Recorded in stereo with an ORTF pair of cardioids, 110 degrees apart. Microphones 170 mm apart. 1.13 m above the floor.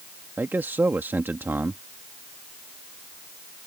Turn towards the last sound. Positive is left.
turn(degrees=-10)